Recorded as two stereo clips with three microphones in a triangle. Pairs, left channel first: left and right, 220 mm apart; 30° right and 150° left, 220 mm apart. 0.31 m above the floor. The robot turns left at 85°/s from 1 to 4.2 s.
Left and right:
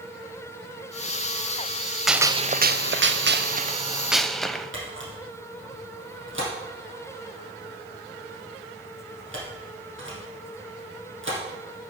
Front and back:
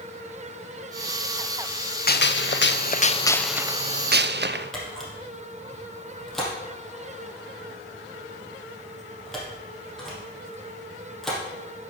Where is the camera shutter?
120° right, 3.5 m.